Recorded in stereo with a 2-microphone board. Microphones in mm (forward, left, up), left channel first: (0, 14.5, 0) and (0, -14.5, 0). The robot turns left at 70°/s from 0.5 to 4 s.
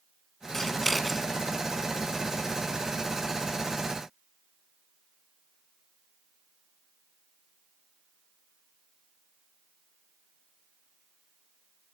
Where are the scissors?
15° left (ahead or behind), 1.5 m; by 1.3 s 10° right (ahead or behind), 1.5 m.